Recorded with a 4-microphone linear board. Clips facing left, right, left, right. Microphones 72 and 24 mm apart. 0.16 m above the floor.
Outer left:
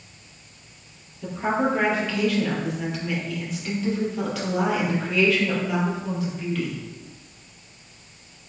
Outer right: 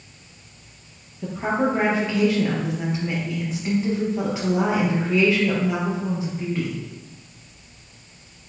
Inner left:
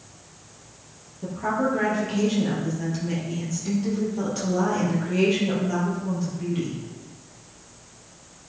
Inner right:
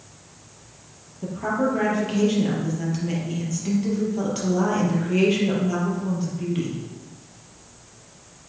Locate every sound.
1.2 s a woman speaking: 25° right (ahead or behind), 4 m